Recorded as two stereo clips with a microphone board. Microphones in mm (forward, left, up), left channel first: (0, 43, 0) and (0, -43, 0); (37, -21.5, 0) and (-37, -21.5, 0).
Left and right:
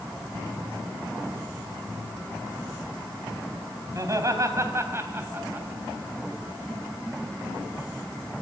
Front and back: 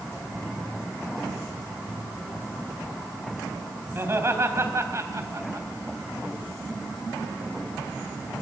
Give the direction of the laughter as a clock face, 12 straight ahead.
4 o'clock.